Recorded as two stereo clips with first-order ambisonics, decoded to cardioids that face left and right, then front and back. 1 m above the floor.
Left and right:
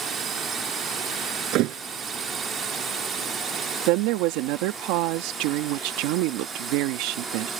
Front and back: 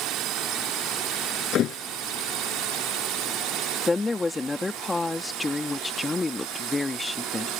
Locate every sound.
0.0 s a drone: 150° right; by 7.6 s 155° right
1.5 s a thud: 55° right
3.9 s a woman speaking: 80° right